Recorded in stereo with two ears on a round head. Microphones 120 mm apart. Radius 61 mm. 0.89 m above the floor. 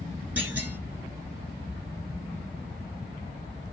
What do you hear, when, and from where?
0.4 s a clunk: 10° right (ahead or behind), 1.1 m